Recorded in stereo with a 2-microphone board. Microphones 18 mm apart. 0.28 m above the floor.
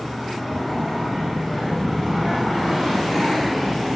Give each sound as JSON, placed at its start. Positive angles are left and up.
{"t": 0.7, "sound": "a child speaking", "side_deg": 15, "distance_m": 3.0}